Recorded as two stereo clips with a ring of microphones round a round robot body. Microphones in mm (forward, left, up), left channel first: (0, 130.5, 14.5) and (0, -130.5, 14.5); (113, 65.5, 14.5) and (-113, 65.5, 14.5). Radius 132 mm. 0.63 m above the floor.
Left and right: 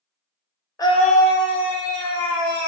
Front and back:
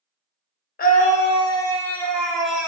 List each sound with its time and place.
0.8 s a scream: 20° left, 0.7 m; by 2.7 s 95° left, 1.3 m